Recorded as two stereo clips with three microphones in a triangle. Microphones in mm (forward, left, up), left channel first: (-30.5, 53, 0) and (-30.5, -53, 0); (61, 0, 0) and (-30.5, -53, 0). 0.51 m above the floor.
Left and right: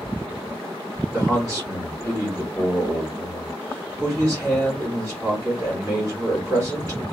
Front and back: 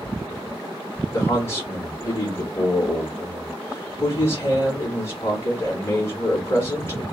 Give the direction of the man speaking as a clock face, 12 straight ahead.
1 o'clock.